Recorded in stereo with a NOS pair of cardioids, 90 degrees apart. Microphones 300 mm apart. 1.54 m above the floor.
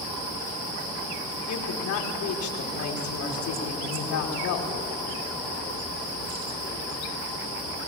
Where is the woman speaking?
70° left, 5 m.